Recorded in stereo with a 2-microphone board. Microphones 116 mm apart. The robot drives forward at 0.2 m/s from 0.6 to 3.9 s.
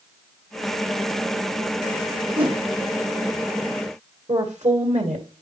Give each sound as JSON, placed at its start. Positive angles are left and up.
{"t": 2.4, "sound": "a whoosh", "side_deg": -50, "distance_m": 1.7}
{"t": 4.3, "sound": "a woman speaking", "side_deg": -85, "distance_m": 2.0}